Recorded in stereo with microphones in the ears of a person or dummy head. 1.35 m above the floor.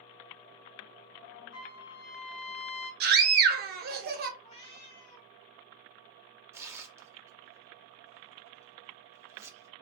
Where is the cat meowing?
30° left (ahead or behind), 1.3 m.